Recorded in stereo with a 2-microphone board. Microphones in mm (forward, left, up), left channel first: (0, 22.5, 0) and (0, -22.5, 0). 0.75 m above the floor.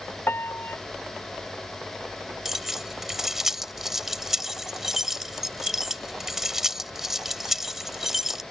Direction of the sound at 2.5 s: 5° right (ahead or behind).